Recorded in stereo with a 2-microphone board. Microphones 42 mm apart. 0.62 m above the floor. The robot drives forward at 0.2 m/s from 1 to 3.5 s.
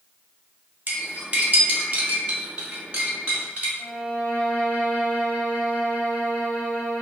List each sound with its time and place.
0.9 s cutlery clinking: 35° right (ahead or behind), 0.9 m; by 3.7 s 25° right (ahead or behind), 1.3 m
3.8 s a violin: 40° left (ahead or behind), 1.5 m